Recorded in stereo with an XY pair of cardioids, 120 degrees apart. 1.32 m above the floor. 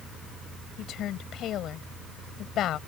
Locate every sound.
0.8 s a woman speaking: 60° left